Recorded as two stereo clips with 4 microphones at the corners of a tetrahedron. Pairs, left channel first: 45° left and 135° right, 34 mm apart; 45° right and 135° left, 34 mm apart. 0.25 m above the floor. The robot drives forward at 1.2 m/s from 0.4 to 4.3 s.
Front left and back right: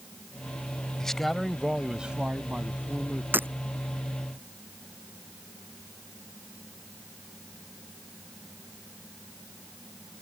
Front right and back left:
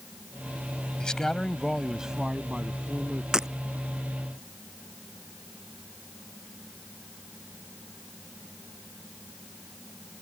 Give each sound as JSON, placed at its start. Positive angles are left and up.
{"t": 1.0, "sound": "a man speaking", "azimuth_deg": -15}
{"t": 3.3, "sound": "breaking glass", "azimuth_deg": -150}